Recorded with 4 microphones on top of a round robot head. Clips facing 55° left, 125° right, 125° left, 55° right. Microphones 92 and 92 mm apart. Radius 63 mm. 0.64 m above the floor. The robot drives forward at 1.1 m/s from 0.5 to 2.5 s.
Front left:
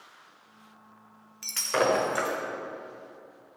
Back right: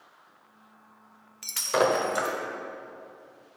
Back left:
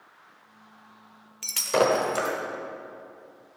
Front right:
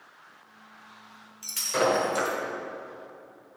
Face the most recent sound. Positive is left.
turn(degrees=165)